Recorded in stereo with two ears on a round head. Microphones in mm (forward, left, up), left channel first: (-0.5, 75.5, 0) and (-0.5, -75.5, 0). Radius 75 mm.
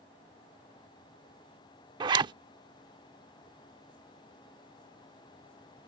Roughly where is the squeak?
I don't hear a squeak.